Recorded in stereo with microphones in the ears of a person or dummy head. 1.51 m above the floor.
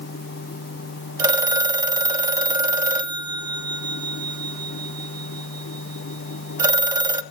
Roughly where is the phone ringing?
Centre.